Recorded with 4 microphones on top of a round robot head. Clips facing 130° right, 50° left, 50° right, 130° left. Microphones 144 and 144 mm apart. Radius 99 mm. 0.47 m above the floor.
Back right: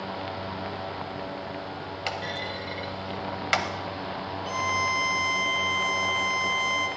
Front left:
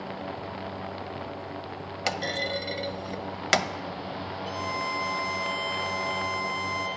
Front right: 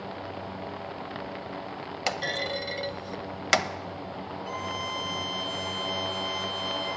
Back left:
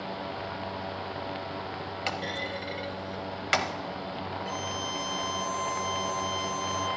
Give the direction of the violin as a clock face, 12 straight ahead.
5 o'clock.